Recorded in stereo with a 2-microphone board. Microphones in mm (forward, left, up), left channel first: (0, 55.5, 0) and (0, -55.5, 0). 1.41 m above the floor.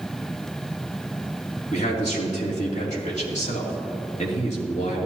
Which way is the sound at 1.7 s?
75° left (ahead or behind).